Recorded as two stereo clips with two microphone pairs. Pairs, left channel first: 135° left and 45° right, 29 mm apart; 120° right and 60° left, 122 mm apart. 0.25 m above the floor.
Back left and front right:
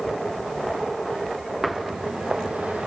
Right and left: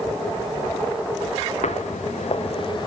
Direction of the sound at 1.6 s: 130° right.